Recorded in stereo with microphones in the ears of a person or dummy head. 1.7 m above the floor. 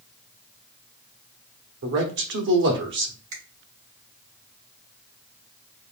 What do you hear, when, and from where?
1.8 s a man speaking: 60° right (ahead or behind), 1.1 m
3.3 s a finger snap: 45° right (ahead or behind), 2.5 m